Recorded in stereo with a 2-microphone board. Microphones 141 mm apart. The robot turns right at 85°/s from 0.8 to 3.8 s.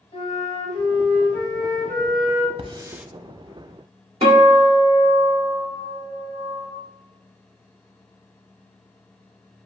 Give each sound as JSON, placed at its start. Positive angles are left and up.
{"t": 0.1, "sound": "a flute", "azimuth_deg": 65, "distance_m": 2.0}
{"t": 2.6, "sound": "a hiss", "side_deg": -45, "distance_m": 0.5}
{"t": 4.2, "sound": "a guitar", "side_deg": -45, "distance_m": 2.0}